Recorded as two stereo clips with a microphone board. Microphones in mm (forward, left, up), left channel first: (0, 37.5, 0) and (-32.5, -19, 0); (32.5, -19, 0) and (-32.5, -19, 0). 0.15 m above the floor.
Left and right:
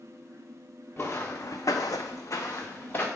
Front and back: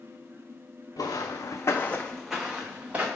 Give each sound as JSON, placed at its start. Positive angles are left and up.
{"t": 1.0, "sound": "footsteps", "azimuth_deg": 0, "distance_m": 0.7}